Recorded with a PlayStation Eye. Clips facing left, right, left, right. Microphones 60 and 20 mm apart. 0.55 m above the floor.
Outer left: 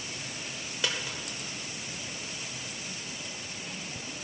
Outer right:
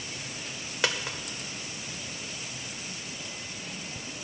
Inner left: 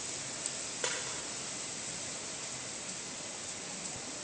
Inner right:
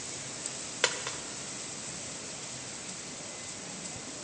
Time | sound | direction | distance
0.8 | a dropped coin | 70° right (ahead or behind) | 0.8 m